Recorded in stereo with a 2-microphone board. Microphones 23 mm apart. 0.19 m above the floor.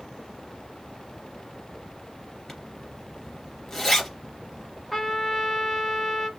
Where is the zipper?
15° left (ahead or behind), 2.5 m.